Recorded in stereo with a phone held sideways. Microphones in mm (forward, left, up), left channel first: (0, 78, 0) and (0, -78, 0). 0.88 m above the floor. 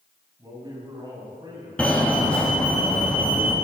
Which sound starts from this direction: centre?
A fire alarm, at 1.8 s.